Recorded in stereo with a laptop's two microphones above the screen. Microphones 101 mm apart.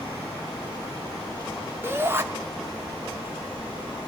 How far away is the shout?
About 1.8 m.